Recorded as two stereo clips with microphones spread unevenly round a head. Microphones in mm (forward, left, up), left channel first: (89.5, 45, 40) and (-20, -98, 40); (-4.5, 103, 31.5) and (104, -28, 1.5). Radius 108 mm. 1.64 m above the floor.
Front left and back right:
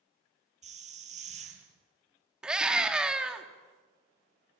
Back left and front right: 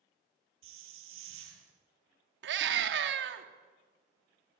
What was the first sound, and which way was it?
A hiss, 75° right.